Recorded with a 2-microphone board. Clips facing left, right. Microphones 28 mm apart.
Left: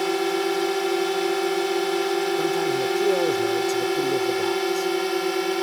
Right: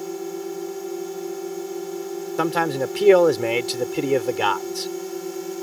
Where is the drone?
80° left; by 5.6 s 65° left (ahead or behind).